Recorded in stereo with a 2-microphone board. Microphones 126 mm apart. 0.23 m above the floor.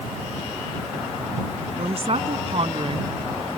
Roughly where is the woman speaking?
Right.